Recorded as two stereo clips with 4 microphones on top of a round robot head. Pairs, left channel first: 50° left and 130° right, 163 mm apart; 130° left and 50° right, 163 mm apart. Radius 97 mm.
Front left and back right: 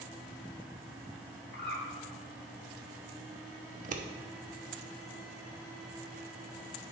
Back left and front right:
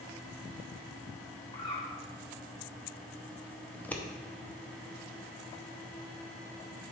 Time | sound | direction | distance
1.5 | a bird | 65° left | 1.6 m
3.7 | scissors | 150° right | 0.8 m